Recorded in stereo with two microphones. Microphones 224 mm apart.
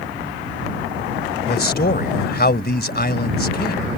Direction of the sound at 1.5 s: 45° left (ahead or behind).